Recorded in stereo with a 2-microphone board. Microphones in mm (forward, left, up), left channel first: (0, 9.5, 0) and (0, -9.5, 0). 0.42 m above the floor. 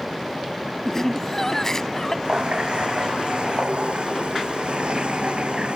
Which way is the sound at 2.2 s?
90° right.